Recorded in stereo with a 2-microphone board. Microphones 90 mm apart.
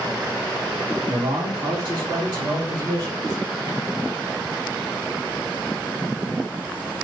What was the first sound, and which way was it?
A man speaking, 70° right (ahead or behind).